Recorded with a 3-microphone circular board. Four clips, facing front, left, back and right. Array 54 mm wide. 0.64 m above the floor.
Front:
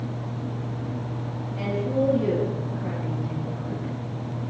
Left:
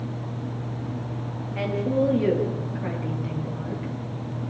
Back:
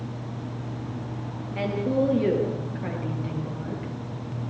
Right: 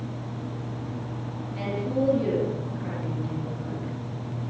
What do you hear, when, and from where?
1.6 s a woman speaking: 125° left, 9 m